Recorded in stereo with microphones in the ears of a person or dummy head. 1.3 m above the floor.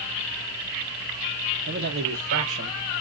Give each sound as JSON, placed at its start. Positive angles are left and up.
{"t": 1.7, "sound": "a man speaking", "side_deg": -65, "distance_m": 0.7}